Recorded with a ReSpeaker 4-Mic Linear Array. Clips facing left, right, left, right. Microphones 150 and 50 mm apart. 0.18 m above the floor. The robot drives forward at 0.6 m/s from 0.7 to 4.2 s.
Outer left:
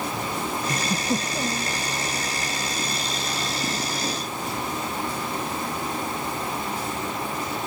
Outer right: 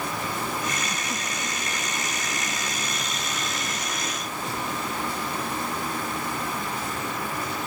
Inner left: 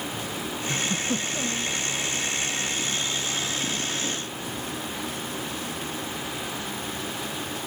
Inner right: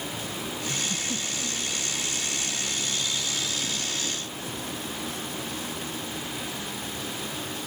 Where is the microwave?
I don't hear a microwave.